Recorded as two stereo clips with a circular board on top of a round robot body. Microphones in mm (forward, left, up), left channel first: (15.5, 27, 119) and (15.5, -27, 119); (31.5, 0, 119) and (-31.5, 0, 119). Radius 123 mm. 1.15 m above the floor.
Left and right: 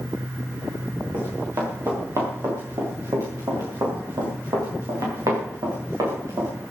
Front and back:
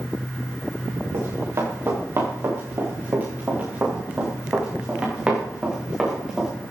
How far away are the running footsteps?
About 7.5 m.